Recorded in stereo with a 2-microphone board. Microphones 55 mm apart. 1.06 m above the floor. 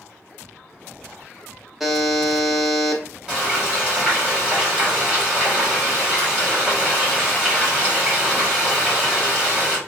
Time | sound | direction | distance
1.8 | a buzzer | 5° right (ahead or behind) | 0.6 m
3.3 | frying | 25° right (ahead or behind) | 1.9 m